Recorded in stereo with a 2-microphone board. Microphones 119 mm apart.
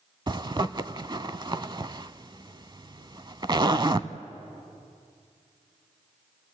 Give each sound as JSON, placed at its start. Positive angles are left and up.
{"t": 0.3, "sound": "a zipper", "side_deg": -35, "distance_m": 0.5}